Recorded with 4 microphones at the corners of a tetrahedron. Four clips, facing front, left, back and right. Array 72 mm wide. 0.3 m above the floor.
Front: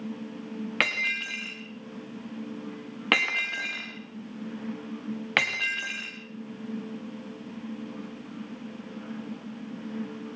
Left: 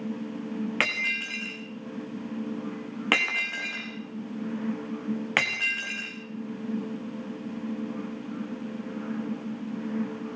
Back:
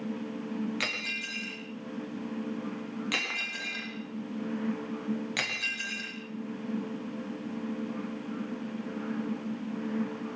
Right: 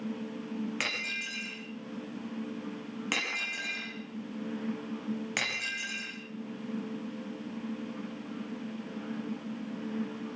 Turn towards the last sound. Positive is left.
turn(degrees=40)